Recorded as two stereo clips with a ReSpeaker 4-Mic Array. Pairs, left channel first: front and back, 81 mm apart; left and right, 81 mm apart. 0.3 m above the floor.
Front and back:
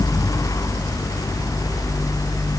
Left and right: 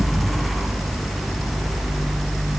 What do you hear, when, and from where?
Only background noise.